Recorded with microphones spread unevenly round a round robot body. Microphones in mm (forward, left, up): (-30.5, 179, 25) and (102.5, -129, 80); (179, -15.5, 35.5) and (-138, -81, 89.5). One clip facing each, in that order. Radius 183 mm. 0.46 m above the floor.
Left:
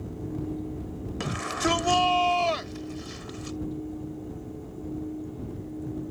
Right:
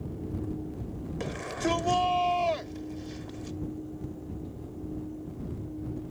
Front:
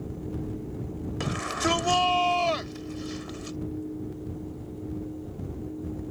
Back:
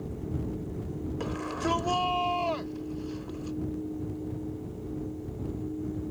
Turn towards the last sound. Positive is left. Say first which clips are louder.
# left 2 dB, front 2 dB
turn(degrees=55)